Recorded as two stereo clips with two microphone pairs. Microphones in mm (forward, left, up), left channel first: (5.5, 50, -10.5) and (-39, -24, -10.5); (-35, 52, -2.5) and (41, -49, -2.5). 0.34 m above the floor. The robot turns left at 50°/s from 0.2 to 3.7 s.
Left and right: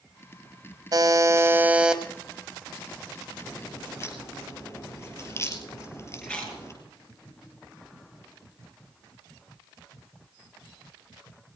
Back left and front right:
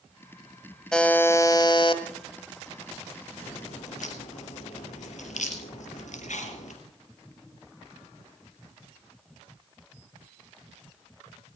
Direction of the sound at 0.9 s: 150° right.